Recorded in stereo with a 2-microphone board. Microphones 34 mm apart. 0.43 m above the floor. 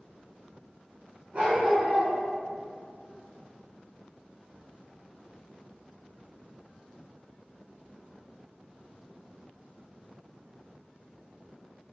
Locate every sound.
1.3 s a dog barking: 40° right (ahead or behind), 1.3 m